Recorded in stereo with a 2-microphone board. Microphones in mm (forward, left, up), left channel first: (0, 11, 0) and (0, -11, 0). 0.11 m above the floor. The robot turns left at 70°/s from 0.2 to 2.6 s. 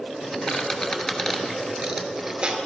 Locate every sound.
0.5 s a squeak: 45° left (ahead or behind), 1.0 m; by 2.6 s 45° right (ahead or behind), 1.0 m